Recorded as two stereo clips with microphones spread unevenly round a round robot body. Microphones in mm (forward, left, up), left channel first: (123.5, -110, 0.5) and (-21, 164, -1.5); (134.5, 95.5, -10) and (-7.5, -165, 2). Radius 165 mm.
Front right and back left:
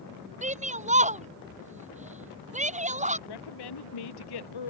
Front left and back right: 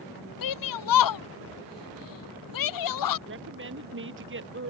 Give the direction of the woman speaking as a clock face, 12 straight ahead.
2 o'clock.